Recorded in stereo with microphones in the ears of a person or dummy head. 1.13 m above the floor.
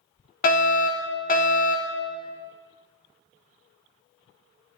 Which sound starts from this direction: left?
A fire alarm, at 0.4 s.